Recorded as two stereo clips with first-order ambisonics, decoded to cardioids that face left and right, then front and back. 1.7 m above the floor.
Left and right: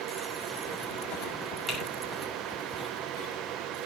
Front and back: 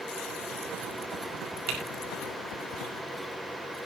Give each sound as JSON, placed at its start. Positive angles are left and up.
{"t": 1.7, "sound": "typing on a keyboard", "azimuth_deg": 170, "distance_m": 5.5}